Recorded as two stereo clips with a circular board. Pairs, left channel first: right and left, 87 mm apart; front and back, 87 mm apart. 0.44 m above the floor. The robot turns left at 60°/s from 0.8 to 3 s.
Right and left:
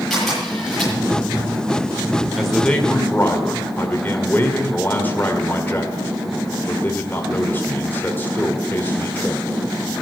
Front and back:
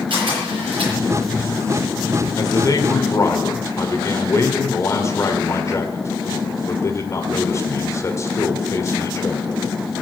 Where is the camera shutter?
175° right, 9 m; by 0.9 s 175° left, 9 m.